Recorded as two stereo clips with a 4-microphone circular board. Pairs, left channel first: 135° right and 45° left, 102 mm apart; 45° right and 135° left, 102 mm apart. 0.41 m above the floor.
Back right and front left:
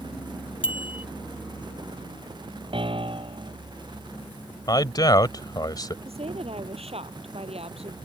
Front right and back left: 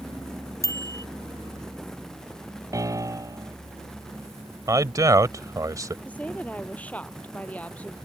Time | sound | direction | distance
0.6 | a bicycle bell | 105° right | ?
2.7 | a piano | 75° left | ?
4.7 | a man speaking | 175° right | ?
6.0 | a woman speaking | 30° left | ?